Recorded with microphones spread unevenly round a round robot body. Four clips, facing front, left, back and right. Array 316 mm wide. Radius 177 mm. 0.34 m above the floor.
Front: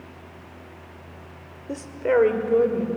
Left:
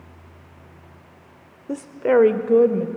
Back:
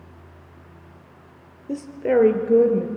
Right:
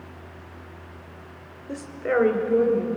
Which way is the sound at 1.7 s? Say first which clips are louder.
Left 6 dB, back 1 dB; 110° left.